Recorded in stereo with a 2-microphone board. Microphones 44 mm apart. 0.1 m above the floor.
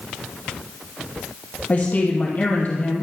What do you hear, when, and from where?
1.7 s a woman speaking: 40° left (ahead or behind), 2.5 m